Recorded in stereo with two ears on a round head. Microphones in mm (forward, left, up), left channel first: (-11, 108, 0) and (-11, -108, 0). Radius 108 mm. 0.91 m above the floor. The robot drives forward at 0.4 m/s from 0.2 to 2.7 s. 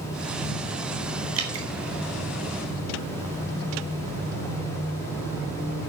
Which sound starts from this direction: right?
Dripping, at 1.4 s.